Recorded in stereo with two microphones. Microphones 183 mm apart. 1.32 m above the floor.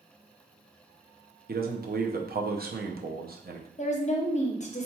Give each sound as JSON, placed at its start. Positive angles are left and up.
{"t": 1.5, "sound": "a man speaking", "side_deg": -55, "distance_m": 0.5}
{"t": 3.8, "sound": "a woman speaking", "side_deg": 40, "distance_m": 0.6}